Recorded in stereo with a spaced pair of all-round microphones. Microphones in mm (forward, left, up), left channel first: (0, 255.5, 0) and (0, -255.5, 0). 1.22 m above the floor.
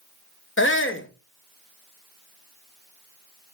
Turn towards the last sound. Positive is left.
turn(degrees=25)  # may be behind; listen again after turning